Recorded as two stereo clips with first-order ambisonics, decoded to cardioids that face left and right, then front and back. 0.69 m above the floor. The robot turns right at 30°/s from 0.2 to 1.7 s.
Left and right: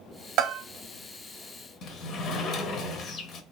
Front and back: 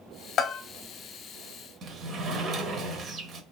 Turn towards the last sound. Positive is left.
turn(degrees=130)